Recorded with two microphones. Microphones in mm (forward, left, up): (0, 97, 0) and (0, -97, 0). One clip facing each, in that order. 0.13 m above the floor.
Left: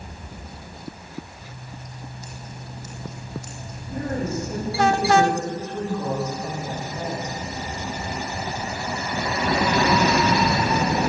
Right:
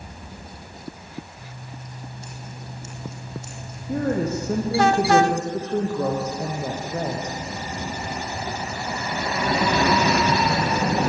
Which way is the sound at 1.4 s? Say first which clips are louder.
Even; 25° right (ahead or behind).